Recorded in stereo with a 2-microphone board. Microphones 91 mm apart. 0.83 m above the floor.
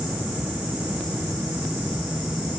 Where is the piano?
No piano in this recording.